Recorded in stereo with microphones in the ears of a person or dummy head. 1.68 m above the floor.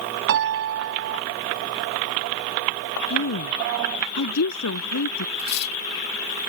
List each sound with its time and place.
0.3 s a piano: 65° right (ahead or behind)
3.1 s a woman speaking: 80° left
5.4 s cutlery clinking: 60° left (ahead or behind)